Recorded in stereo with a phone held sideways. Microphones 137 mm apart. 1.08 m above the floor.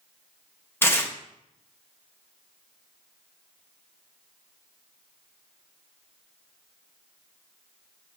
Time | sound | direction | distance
0.8 | tearing paper | 15° left (ahead or behind) | 0.9 m